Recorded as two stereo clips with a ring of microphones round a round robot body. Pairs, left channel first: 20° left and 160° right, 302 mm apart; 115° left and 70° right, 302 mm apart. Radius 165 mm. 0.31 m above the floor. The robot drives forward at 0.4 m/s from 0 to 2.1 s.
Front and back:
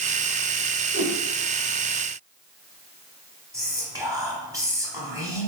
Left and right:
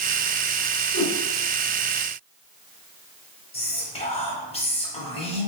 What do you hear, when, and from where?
0.9 s a whoosh: 125° left, 1.2 m
3.5 s whispering: 140° left, 1.3 m